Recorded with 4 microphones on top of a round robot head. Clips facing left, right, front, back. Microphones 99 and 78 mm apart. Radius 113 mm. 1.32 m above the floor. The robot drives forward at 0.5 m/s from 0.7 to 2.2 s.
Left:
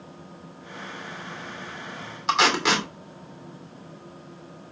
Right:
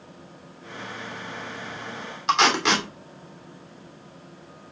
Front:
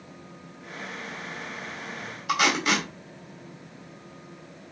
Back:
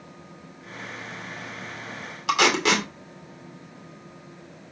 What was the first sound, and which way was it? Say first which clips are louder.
Tape being pulled: right 1 dB, back 3 dB; straight behind.